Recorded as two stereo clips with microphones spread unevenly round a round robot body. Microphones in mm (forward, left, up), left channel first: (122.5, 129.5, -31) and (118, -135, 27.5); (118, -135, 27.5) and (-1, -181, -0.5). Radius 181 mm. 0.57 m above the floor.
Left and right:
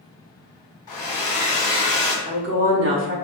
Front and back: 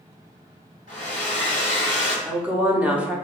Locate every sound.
0.9 s a hair dryer: 130° left, 1.4 m
2.2 s a woman speaking: 105° right, 0.6 m